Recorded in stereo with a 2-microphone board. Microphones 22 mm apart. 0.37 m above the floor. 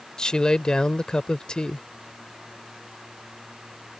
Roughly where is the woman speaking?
Left.